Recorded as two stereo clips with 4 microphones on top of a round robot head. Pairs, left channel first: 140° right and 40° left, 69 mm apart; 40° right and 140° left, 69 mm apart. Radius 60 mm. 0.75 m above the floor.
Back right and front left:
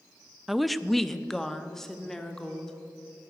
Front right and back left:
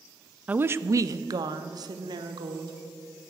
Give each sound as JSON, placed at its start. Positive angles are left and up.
{"t": 0.5, "sound": "a woman speaking", "azimuth_deg": 125, "distance_m": 0.6}